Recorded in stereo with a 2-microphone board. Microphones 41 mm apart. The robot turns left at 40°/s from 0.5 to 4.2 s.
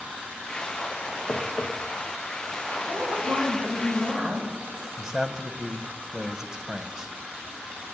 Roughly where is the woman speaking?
Right.